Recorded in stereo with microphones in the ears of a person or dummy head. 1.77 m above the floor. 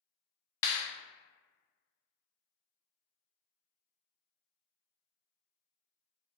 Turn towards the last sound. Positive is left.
turn(degrees=15)  # may be behind; listen again after turning